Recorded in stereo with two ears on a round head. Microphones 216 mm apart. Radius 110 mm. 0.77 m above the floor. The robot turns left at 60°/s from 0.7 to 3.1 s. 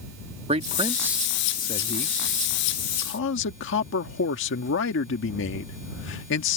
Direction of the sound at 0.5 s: 150° right.